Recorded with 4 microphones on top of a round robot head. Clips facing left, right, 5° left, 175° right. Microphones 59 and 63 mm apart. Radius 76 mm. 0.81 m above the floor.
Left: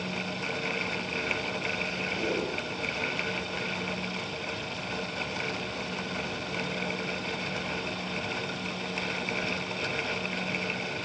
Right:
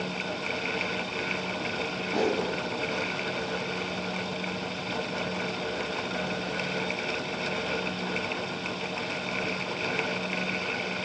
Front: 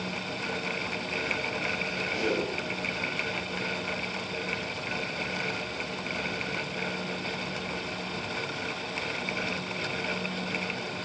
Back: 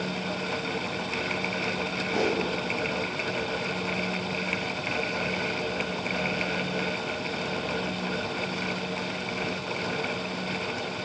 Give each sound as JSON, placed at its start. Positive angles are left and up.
{"t": 2.1, "sound": "a whoosh", "azimuth_deg": -125, "distance_m": 4.0}